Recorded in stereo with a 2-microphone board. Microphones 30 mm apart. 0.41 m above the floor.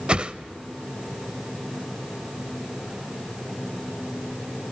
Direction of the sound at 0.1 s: 40° right (ahead or behind).